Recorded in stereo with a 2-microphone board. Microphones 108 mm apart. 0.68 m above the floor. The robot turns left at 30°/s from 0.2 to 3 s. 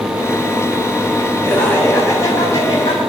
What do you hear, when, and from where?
1.4 s laughter: 175° left, 5 m; by 3.0 s 125° left, 5 m